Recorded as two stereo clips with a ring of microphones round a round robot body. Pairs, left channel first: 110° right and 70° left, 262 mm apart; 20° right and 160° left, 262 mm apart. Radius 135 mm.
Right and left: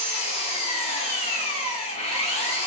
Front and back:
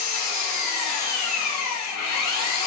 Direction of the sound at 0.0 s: 45° right.